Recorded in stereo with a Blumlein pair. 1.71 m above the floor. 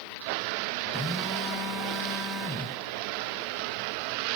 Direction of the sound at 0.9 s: 5° left.